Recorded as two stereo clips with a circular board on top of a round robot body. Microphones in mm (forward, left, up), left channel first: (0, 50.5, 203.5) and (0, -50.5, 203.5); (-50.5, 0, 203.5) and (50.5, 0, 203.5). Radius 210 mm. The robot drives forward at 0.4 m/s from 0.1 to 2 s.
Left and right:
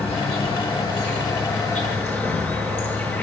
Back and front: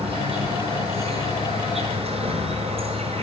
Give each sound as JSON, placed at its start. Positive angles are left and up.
{"t": 0.0, "sound": "an insect", "azimuth_deg": 20, "distance_m": 7.5}